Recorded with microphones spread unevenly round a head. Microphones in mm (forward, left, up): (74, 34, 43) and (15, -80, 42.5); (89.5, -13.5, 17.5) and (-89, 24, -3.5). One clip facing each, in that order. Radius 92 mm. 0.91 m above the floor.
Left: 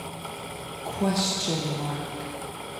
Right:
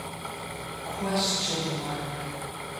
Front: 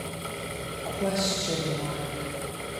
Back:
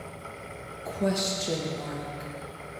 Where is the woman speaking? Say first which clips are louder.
Left 3 dB, even; 105° left, 0.8 m.